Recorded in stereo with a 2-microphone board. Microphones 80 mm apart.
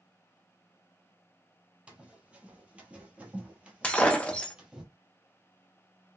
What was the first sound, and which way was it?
Running footsteps, 10° right (ahead or behind).